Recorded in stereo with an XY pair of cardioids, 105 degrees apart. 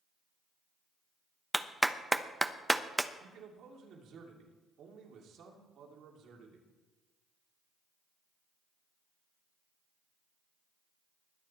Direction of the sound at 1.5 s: 5° right.